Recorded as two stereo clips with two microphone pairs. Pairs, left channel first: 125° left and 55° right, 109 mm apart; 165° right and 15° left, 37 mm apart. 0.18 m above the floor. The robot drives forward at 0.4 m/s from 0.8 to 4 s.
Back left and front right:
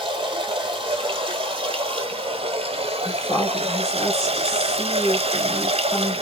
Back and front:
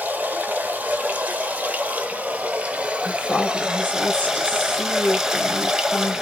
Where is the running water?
20° right, 1.7 m; by 6.2 s 60° right, 0.7 m.